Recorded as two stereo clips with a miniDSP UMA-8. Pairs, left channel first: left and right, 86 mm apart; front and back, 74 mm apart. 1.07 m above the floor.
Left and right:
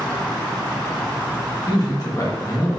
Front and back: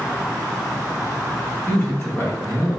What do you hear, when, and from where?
1.7 s a man speaking: 60° left, 1.9 m; by 2.8 s 35° left, 1.6 m